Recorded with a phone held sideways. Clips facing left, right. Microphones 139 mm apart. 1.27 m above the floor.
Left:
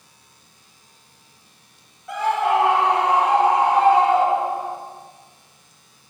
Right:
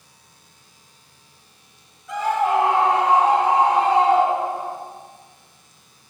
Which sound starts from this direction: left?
A scream, at 2.1 s.